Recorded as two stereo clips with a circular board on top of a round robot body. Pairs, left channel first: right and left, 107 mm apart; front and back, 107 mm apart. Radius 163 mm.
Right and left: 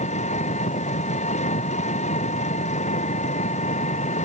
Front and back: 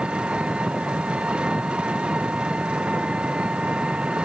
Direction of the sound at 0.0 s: 100° right.